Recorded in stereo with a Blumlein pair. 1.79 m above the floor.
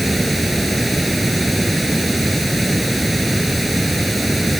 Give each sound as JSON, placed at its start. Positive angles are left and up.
{"t": 0.0, "sound": "running water", "azimuth_deg": -5}